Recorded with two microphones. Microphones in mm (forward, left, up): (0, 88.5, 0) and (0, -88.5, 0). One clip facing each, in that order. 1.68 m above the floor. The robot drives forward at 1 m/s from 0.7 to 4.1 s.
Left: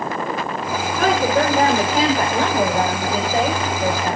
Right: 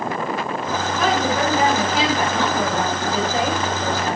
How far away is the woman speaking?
About 6 m.